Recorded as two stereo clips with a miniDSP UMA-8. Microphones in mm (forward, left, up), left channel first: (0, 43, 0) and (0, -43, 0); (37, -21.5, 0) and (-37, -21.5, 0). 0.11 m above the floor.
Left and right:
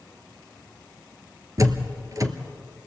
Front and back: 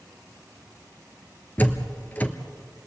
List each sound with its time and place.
1.6 s a door slam: 60° right, 1.4 m